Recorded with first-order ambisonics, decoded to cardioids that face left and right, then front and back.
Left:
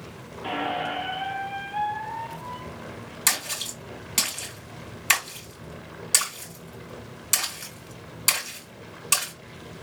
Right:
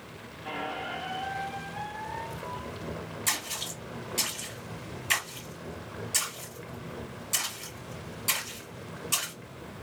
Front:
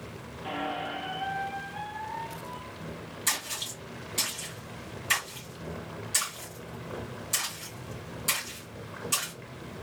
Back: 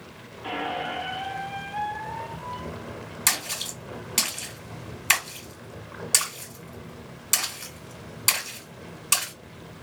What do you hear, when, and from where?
0.4 s a squeak: 115° left, 0.6 m
3.3 s a splash: 135° left, 1.9 m